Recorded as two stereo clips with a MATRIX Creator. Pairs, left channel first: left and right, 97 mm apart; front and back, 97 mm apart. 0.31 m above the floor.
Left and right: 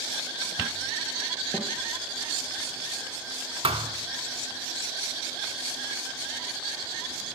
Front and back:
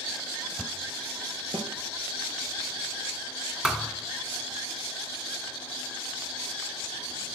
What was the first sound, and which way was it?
A snare drum, 160° left.